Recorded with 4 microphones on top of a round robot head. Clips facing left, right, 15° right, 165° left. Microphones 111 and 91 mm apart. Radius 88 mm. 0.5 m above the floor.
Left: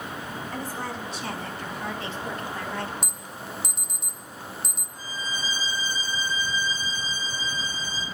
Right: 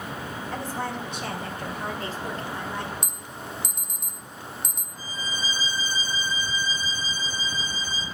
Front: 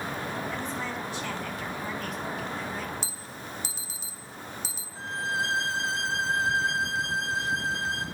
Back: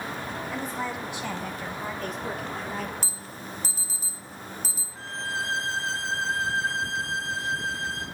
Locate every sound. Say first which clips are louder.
0.5 s a woman speaking: right 3 dB, back 2 dB; 115° right, 3.5 m; by 2.9 s 165° right, 1.8 m
3.0 s an alarm: even, back 1 dB; 175° left, 1.6 m
5.0 s a violin: even, front 2 dB; 55° right, 3.5 m